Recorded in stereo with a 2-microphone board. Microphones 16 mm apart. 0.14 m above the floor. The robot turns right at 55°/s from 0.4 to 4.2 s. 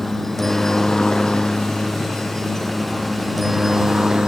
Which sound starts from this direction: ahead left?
A helicopter, at 0.0 s.